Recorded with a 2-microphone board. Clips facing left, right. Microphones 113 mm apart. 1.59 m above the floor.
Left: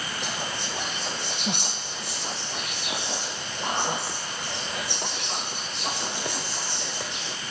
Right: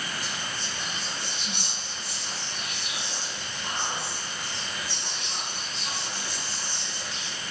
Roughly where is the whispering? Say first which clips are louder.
Left 4 dB; left.